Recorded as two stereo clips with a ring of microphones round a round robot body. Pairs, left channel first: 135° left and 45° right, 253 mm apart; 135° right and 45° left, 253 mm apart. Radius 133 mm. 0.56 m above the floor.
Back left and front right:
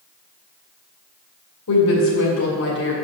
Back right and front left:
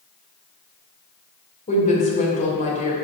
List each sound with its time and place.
1.7 s a woman speaking: 165° left, 2.5 m